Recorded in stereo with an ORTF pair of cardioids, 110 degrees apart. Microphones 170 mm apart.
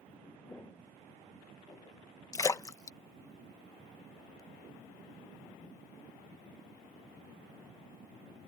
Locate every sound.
0.5 s footsteps: 15° left; by 2.0 s 25° left
2.3 s a splash: 20° left